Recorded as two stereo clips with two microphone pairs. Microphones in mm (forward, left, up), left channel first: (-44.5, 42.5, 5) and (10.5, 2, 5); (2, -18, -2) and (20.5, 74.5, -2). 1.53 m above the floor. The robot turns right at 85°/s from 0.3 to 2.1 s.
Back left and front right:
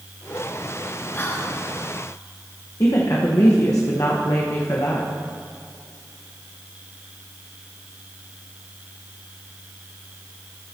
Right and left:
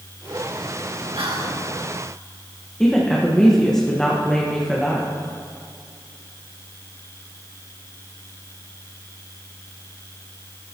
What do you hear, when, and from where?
1.2 s whispering: 90° left, 2.5 m; by 1.6 s 125° left, 2.5 m
2.8 s a woman speaking: 175° left, 1.4 m